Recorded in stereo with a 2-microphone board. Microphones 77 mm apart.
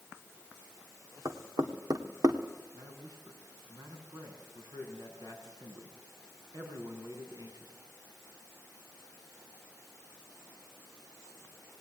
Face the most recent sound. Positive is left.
turn(degrees=-55)  # may be behind; listen again after turning